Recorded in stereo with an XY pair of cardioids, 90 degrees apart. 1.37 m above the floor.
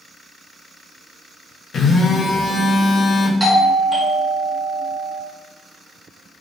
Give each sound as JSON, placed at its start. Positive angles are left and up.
{"t": 1.7, "sound": "a phone buzzing", "azimuth_deg": 60, "distance_m": 0.6}
{"t": 3.4, "sound": "a doorbell", "azimuth_deg": -10, "distance_m": 0.7}